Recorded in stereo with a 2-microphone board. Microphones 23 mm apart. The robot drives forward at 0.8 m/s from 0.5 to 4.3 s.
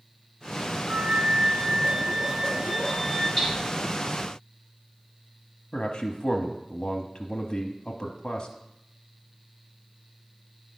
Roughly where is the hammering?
Centre.